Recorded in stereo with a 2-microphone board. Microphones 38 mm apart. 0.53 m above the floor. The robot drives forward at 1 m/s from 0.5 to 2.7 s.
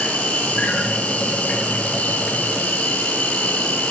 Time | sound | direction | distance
0.0 | an insect | 35° left (ahead or behind) | 9.5 m